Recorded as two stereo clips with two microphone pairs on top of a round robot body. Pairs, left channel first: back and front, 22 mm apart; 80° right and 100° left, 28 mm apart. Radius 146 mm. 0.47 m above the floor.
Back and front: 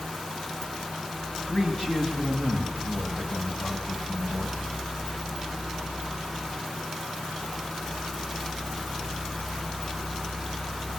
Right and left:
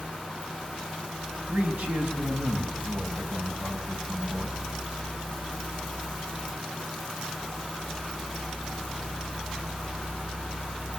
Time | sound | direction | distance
1.5 | a man speaking | 105° left | 4.5 m